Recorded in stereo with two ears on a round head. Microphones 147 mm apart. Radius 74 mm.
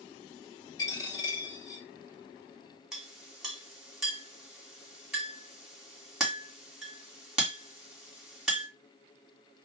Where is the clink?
5° right (ahead or behind), 1.7 m.